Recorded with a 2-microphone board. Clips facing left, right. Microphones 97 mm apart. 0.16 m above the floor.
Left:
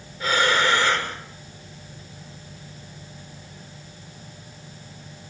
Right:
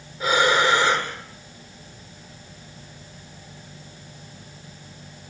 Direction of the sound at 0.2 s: 15° right (ahead or behind).